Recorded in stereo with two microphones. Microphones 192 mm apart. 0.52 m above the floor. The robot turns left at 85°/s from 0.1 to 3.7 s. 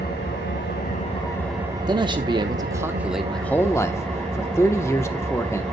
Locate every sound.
0.0 s an engine running: 120° left, 3.5 m; by 5.7 s 175° left, 3.5 m
1.9 s a man speaking: 20° right (ahead or behind), 0.9 m; by 5.6 s 15° left (ahead or behind), 0.9 m